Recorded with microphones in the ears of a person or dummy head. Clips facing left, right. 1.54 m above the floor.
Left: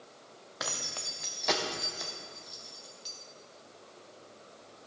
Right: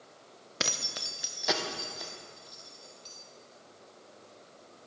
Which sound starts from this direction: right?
Keys jangling, at 0.6 s.